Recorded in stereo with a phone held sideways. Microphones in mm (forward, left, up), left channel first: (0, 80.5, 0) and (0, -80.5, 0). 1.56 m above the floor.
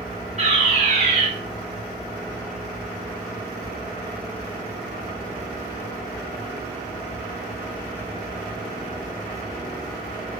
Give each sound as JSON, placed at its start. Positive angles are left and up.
{"t": 0.4, "sound": "a fire alarm", "side_deg": -45, "distance_m": 5.0}